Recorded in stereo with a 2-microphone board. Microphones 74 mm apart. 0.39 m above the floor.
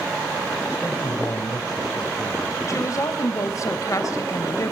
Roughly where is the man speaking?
Left.